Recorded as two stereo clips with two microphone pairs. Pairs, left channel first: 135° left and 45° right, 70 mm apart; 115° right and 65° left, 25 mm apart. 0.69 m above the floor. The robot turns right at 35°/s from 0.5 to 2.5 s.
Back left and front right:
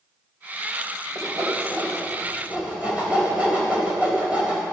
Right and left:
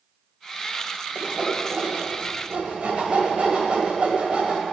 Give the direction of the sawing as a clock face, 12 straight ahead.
1 o'clock.